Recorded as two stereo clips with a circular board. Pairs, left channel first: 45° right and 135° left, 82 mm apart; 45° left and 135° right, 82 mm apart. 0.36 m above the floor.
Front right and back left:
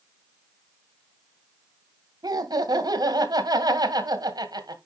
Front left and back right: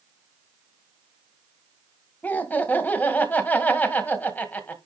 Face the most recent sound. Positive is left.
turn(degrees=110)